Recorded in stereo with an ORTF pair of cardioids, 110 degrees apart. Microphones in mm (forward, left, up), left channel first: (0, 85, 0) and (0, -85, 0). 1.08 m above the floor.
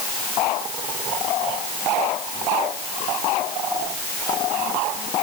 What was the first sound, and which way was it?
Only background noise.